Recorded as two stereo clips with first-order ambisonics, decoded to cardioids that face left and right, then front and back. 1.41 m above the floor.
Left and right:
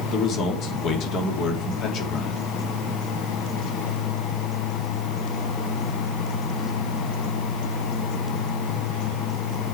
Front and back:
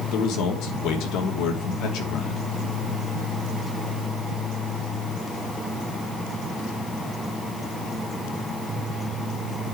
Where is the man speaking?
40° left, 2.5 m.